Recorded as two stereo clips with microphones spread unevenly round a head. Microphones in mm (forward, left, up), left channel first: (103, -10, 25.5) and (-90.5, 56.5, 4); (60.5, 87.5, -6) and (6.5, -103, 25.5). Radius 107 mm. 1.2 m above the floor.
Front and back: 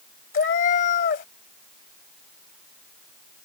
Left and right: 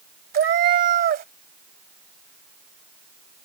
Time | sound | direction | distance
0.3 | a cat meowing | 70° right | ?